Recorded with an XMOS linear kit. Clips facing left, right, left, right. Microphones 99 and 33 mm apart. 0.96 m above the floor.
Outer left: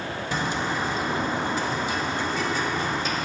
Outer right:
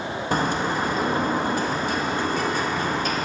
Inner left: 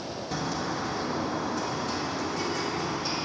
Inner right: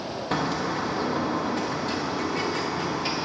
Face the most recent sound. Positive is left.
turn(degrees=-50)  # may be behind; listen again after turning